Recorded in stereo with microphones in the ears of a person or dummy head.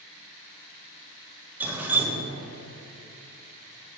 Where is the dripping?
10° right (ahead or behind), 1.1 m.